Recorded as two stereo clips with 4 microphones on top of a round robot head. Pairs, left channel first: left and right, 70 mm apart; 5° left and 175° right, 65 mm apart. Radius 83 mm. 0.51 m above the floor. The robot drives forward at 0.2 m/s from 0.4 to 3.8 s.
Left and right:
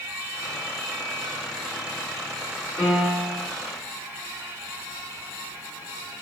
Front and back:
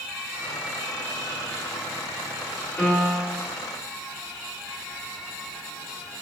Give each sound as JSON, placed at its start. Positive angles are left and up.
{"t": 2.8, "sound": "a piano", "azimuth_deg": 85, "distance_m": 1.7}